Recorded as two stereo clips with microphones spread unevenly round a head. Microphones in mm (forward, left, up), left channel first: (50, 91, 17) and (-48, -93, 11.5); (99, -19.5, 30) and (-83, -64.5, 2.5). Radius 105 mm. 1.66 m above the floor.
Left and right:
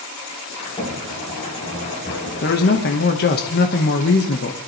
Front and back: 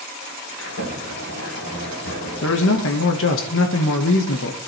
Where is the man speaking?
20° left, 1.5 m.